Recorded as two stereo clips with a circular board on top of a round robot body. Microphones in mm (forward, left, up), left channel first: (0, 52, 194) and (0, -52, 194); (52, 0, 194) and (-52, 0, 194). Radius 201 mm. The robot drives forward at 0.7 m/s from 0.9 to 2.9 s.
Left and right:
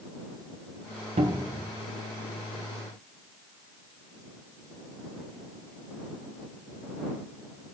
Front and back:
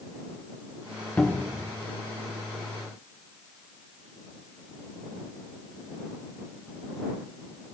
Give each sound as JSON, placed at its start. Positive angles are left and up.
{"t": 1.2, "sound": "a cupboard door", "azimuth_deg": -75, "distance_m": 0.7}